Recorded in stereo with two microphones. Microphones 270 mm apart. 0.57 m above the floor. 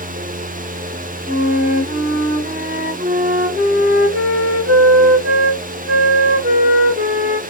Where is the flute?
40° right (ahead or behind), 1.3 m.